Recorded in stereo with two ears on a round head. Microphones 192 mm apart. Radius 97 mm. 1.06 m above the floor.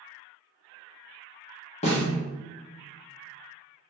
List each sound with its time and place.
1.8 s a snare drum: 30° left (ahead or behind), 0.8 m